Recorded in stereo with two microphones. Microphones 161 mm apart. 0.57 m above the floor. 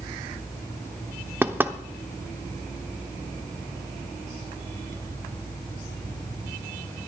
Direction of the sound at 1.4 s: 15° right (ahead or behind).